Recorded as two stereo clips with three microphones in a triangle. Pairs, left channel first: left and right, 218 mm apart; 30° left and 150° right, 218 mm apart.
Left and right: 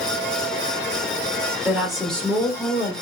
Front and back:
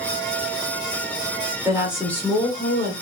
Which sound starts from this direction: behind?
A woman speaking, at 1.6 s.